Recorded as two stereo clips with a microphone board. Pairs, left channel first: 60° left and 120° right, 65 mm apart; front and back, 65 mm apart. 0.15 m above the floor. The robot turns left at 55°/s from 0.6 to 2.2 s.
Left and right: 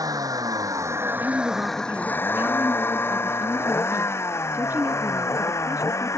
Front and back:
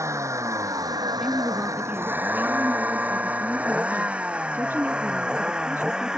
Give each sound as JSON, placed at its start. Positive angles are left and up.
{"t": 0.0, "sound": "a vehicle", "azimuth_deg": -140}
{"t": 1.2, "sound": "a woman speaking", "azimuth_deg": -95}